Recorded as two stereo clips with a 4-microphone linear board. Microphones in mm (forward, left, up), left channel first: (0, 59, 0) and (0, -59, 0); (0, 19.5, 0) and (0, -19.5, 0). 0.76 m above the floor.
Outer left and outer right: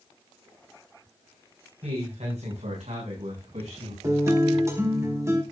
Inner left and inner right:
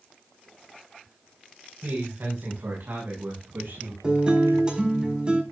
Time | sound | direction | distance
1.8 | a man speaking | 70° right (ahead or behind) | 5.5 m
4.0 | a guitar | 25° right (ahead or behind) | 5 m